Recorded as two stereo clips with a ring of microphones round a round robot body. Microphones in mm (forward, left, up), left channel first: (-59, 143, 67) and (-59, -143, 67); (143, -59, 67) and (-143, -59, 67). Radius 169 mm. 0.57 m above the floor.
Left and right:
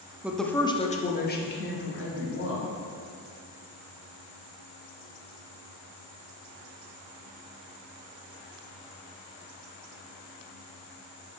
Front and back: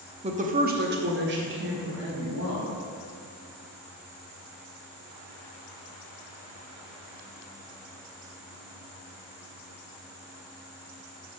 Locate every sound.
0.2 s a woman speaking: 165° right, 0.8 m; by 2.7 s 130° left, 2.0 m